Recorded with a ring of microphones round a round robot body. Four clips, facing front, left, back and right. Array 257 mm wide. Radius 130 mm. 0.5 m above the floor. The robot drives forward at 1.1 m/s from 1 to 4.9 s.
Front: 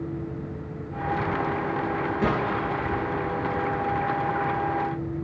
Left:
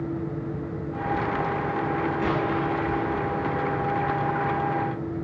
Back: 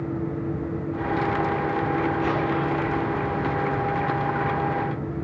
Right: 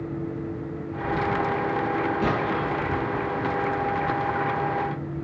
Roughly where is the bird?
No bird in this recording.